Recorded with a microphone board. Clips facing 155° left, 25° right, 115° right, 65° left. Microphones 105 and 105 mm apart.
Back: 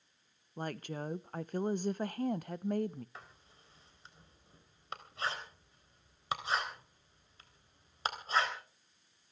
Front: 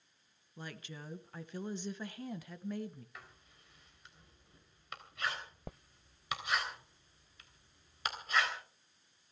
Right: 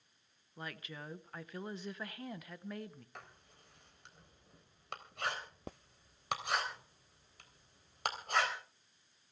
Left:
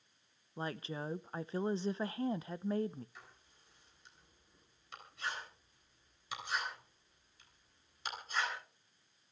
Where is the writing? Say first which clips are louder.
Back 2 dB, right 4 dB; 140° right, 3.5 m.